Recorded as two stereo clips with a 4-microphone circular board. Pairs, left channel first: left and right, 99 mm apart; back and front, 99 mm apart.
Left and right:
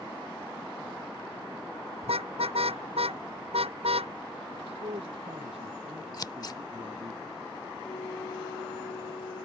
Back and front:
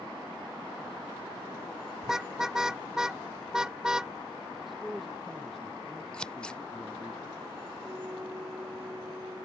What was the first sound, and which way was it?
A car horn, 85° right.